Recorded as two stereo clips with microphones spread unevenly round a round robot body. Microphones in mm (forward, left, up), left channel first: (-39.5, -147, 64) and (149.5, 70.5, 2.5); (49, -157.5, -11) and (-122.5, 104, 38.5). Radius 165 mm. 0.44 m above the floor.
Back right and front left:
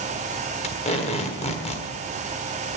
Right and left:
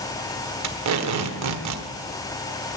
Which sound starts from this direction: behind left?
Tape being pulled, at 0.6 s.